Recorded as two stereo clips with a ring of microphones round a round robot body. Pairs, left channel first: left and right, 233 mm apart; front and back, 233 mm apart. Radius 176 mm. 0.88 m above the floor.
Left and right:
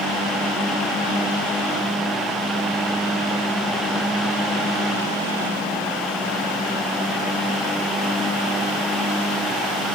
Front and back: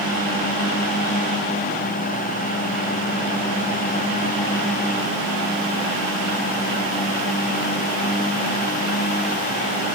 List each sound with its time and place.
Only background noise.